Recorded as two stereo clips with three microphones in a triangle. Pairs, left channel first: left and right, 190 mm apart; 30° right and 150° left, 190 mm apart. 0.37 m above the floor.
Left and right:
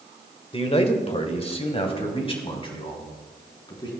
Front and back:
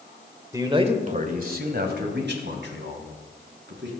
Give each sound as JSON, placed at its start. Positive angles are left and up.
{"t": 0.5, "sound": "a man speaking", "azimuth_deg": 95, "distance_m": 1.5}